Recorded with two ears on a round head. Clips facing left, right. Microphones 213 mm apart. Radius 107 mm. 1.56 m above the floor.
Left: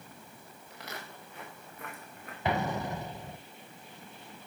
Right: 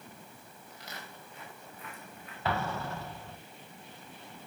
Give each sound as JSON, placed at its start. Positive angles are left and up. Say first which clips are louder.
{"t": 0.7, "sound": "footsteps", "louder": "left 3 dB", "side_deg": 50, "distance_m": 6.5}
{"t": 2.5, "sound": "an explosion", "louder": "left 3 dB", "side_deg": 15, "distance_m": 0.9}